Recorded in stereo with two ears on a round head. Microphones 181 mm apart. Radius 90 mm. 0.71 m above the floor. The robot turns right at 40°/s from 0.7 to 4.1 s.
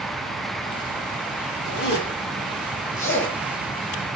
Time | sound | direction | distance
1.6 | a zipper | 70° left (ahead or behind) | 8.5 m